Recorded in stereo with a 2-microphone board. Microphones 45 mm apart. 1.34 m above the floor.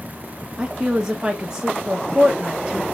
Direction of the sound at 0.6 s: 15° right (ahead or behind).